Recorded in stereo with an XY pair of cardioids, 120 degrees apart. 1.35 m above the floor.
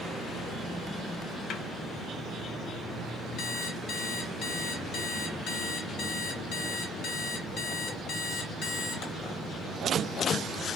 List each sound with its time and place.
1.5 s a snare drum: 65° left, 0.6 m
3.4 s an alarm clock: 65° left, 1.3 m